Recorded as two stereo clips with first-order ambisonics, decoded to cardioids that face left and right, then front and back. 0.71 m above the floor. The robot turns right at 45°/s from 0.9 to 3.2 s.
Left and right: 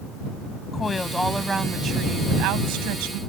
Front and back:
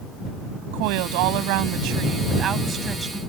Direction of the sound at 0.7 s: 165° left.